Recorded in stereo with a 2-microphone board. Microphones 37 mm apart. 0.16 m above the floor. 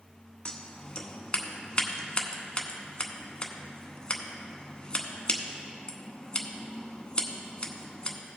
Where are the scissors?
25° left (ahead or behind), 0.9 m.